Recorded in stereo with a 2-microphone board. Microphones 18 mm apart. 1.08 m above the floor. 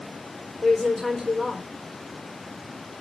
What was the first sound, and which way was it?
A woman speaking, 20° left (ahead or behind).